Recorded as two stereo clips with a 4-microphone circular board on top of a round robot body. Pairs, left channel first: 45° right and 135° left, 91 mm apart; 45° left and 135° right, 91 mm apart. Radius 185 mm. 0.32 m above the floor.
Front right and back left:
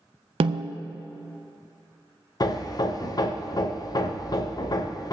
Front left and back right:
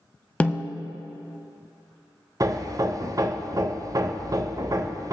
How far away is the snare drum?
About 0.5 m.